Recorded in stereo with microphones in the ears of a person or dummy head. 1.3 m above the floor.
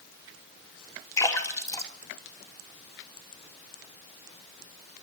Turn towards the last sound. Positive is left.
turn(degrees=20)  # may be behind; listen again after turning